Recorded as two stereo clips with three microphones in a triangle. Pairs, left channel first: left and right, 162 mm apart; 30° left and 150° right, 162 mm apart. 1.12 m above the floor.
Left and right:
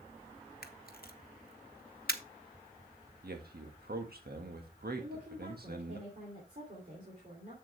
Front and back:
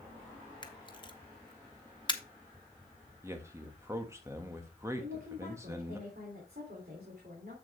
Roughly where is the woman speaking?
Behind right.